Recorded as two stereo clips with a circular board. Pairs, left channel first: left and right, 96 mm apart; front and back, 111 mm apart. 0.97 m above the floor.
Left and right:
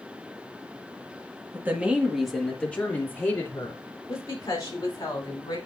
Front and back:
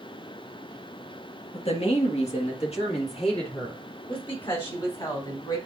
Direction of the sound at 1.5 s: 25° right.